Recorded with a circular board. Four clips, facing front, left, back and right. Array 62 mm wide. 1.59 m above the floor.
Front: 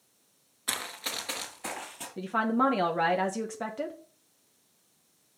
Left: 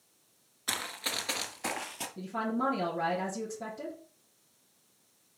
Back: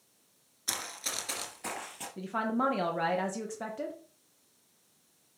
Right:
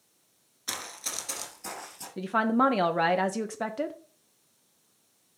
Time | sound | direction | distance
0.7 | running footsteps | 30° left | 1.7 m
2.2 | a woman speaking | 70° right | 1.0 m